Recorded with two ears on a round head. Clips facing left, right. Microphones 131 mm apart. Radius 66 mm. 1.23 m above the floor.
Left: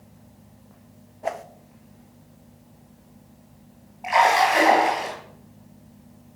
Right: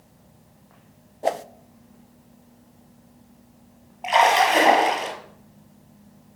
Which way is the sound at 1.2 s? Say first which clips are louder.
Right 5 dB; 35° right (ahead or behind).